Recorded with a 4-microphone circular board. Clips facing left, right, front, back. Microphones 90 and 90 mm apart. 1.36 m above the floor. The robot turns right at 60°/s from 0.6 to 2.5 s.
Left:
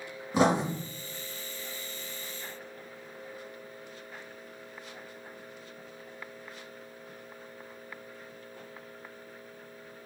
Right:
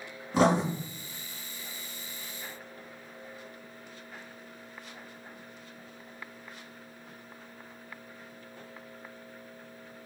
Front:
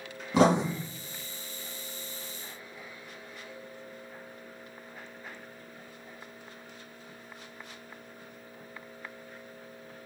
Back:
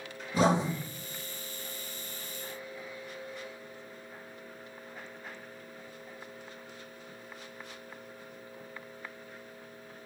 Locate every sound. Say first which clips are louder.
0.3 s writing: right 1 dB, front 3 dB; 10° left, 1.5 m; by 0.6 s 15° left, 1.5 m